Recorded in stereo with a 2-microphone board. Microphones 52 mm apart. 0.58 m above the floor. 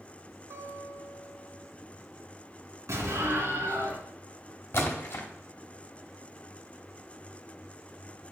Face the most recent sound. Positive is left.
turn(degrees=50)  # may be behind; listen again after turning